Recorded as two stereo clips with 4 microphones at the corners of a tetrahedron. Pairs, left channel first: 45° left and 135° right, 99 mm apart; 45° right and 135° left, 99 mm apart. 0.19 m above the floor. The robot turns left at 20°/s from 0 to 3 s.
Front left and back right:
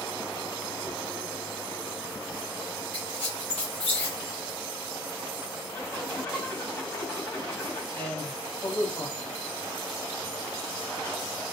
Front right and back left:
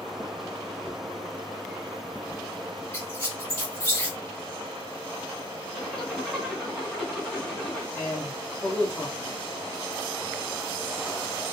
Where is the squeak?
15° left, 1.3 m.